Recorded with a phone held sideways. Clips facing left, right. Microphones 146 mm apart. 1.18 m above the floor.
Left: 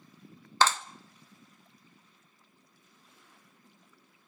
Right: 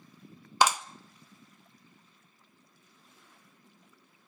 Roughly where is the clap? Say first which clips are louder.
Right 1 dB; centre.